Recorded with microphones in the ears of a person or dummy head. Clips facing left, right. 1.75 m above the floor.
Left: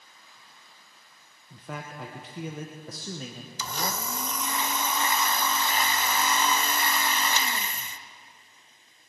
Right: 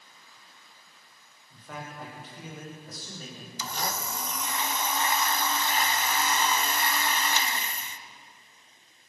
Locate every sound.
1.5 s a man speaking: 60° left (ahead or behind), 1.4 m
3.6 s a blender: 70° left (ahead or behind), 0.7 m